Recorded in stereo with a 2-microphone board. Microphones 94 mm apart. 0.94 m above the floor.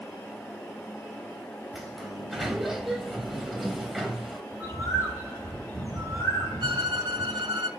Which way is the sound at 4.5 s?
35° left (ahead or behind).